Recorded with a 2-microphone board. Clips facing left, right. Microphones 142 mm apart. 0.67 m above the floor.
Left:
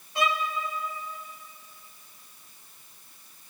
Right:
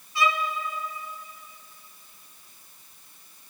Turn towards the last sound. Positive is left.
turn(degrees=60)  # may be behind; listen again after turning